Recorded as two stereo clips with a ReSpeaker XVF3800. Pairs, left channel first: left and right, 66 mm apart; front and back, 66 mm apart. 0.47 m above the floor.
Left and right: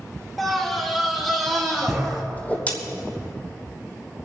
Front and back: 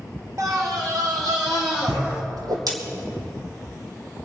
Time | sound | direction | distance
0.4 | a scream | straight behind | 1.2 m
2.4 | a whoosh | 155° left | 2.5 m